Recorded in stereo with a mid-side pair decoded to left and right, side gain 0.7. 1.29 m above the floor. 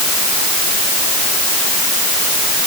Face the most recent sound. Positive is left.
No sound to turn to.